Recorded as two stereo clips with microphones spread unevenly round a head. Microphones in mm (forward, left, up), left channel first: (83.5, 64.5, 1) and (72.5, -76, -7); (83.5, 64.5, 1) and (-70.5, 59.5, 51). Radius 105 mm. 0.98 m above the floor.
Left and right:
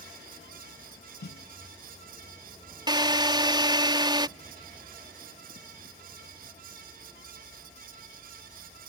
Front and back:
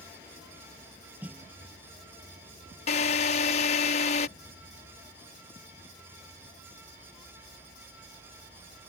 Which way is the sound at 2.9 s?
40° right.